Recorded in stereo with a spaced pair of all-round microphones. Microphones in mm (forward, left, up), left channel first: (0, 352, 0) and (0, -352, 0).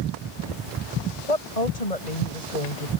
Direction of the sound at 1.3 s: 65° left (ahead or behind).